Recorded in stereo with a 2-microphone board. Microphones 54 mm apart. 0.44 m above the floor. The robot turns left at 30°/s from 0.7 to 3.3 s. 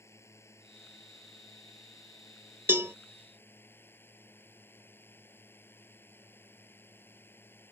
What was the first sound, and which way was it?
A drone, 120° left.